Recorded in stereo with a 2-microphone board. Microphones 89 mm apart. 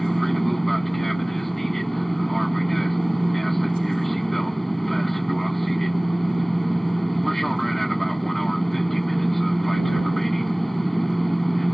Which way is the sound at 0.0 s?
Centre (ahead or behind).